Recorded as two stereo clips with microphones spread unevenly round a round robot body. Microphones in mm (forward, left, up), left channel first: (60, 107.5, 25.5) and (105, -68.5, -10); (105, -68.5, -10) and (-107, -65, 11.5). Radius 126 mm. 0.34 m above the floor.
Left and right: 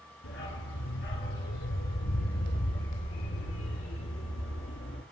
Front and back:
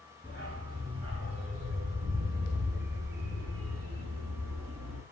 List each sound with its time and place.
0.2 s a dog barking: 105° left, 3 m; by 5.0 s 155° left, 2.5 m